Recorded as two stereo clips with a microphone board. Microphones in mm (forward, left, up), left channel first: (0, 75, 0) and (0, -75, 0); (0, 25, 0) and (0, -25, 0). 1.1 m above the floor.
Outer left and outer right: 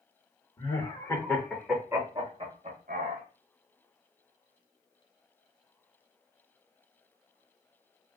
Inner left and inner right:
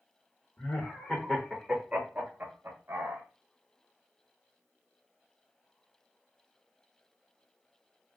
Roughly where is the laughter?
Left.